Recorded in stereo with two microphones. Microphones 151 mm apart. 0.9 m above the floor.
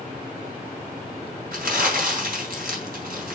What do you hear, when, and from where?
1.5 s crumpling: 75° right (ahead or behind), 3 m